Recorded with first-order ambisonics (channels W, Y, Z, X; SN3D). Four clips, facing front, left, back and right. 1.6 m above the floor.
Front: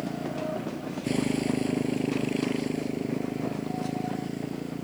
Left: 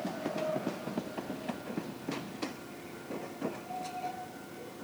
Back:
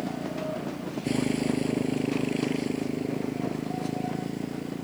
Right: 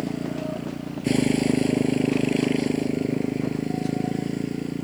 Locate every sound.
0.0 s a motorcycle: 90° right